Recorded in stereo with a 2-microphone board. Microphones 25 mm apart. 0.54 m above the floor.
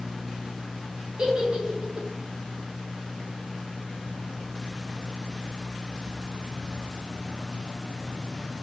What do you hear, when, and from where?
1.2 s a giggle: 40° right (ahead or behind), 0.8 m